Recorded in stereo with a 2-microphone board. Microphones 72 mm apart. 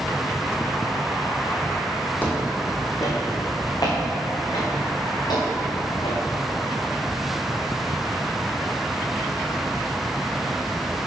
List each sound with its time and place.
2.2 s footsteps: 25° left (ahead or behind), 1.7 m; by 6.2 s 80° left, 5 m